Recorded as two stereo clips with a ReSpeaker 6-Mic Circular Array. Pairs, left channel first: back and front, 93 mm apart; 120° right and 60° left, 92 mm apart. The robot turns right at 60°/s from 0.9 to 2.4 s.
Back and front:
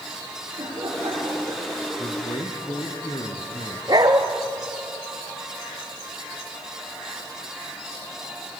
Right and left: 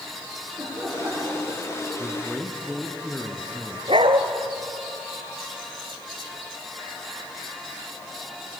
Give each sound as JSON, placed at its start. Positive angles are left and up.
{"t": 0.6, "sound": "laughter", "azimuth_deg": 5, "distance_m": 7.0}
{"t": 2.0, "sound": "a man speaking", "azimuth_deg": 130, "distance_m": 3.0}
{"t": 3.9, "sound": "a dog barking", "azimuth_deg": 45, "distance_m": 1.5}